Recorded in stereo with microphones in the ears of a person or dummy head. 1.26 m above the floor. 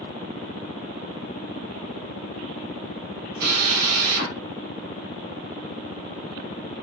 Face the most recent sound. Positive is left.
turn(degrees=-65)  # may be behind; listen again after turning